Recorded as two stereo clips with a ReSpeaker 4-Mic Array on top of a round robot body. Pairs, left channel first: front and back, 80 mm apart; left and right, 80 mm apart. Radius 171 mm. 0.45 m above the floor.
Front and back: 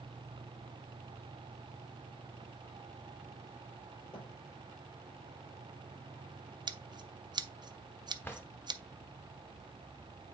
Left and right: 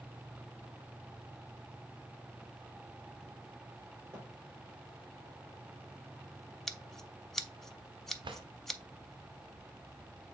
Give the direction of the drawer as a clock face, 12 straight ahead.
2 o'clock.